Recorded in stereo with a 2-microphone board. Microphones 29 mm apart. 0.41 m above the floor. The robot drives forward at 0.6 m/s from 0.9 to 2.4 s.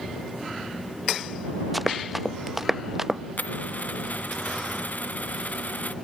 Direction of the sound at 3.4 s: 70° left (ahead or behind).